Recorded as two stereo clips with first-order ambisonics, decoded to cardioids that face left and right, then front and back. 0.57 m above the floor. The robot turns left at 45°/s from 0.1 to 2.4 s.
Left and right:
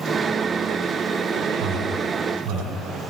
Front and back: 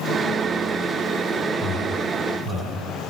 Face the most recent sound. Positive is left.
turn(degrees=-115)